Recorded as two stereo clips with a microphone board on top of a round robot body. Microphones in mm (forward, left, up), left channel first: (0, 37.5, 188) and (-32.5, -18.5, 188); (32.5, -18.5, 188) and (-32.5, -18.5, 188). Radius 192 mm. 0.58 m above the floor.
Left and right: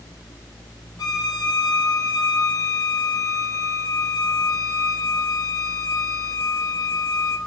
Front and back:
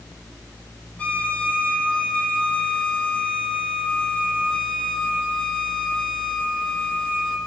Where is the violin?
70° left, 6 m.